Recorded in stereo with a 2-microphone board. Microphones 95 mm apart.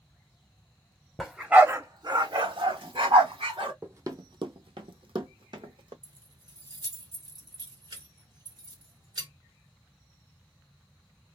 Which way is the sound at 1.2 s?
Centre (ahead or behind).